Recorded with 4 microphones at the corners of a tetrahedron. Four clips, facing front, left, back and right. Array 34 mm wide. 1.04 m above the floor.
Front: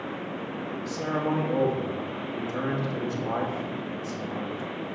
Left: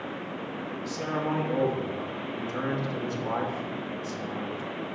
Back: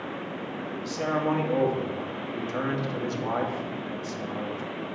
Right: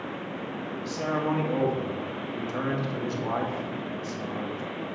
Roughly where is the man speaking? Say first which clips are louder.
Right 2 dB, back 2 dB; behind right.